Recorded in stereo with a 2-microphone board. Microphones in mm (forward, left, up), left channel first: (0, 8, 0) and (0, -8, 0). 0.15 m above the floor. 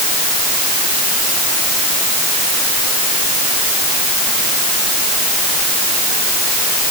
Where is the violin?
No violin in this recording.